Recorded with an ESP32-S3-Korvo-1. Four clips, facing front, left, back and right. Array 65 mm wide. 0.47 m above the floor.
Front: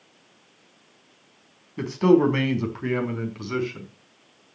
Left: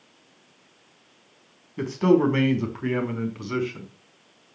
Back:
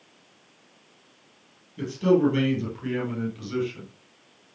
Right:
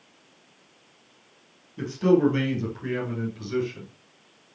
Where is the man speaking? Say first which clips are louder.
Left 1 dB, front 3 dB; 35° left, 4 m; by 3.9 s 50° left, 4.5 m.